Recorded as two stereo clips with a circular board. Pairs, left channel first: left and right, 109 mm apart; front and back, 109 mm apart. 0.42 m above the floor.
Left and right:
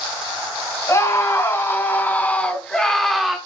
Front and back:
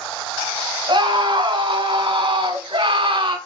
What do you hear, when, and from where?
0.9 s a scream: 145° left, 3.5 m; by 3.4 s 175° right, 2.5 m